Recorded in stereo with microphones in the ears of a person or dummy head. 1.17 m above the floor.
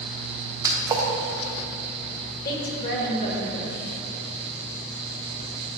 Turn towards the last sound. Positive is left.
turn(degrees=50)  # may be behind; listen again after turning